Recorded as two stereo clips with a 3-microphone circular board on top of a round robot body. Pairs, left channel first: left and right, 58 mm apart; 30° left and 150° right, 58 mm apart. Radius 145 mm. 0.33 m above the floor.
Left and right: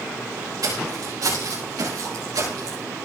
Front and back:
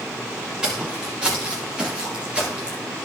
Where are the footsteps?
75° right, 6.5 m.